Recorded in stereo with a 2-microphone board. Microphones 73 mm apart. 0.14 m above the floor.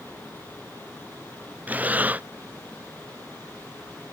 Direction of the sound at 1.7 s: 20° right (ahead or behind).